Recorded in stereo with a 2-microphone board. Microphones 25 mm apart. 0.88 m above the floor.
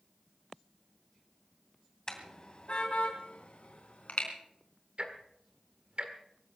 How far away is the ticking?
About 1.7 m.